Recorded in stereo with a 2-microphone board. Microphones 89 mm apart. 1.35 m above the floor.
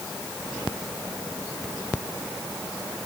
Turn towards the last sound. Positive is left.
No sound to turn to.